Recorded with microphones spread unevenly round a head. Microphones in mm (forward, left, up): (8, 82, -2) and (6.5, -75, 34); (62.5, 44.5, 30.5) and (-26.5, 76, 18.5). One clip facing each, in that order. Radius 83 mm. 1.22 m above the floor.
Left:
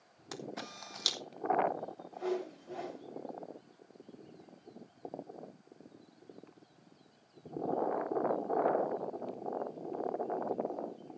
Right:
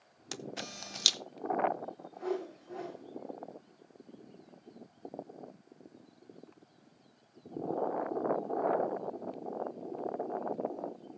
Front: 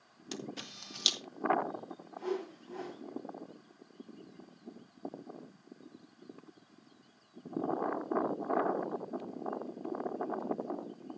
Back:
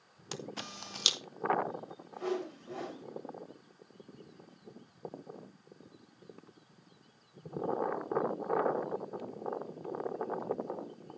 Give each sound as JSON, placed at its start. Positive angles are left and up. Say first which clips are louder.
{"t": 0.3, "sound": "a camera shutter", "louder": "even, even", "azimuth_deg": -150, "distance_m": 0.7}
{"t": 2.1, "sound": "a whoosh", "louder": "even, back 1 dB", "azimuth_deg": 150, "distance_m": 4.5}